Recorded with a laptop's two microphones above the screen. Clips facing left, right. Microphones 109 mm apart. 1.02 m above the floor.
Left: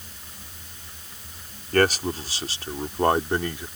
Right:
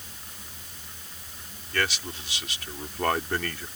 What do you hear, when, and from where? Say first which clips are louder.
1.7 s a man speaking: left 10 dB; 50° left (ahead or behind); by 3.7 s 15° left (ahead or behind)